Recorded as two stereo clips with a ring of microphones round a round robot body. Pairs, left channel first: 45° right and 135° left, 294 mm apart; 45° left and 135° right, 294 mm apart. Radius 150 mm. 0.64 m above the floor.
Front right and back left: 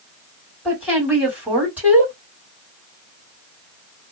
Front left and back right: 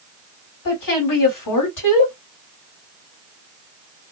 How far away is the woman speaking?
About 1.9 m.